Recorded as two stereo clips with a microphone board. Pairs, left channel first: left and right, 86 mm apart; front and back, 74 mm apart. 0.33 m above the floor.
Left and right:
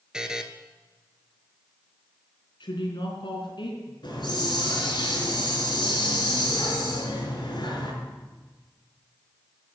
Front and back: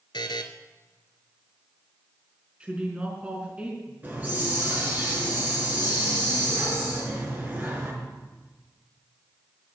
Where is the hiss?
115° left, 4.5 m.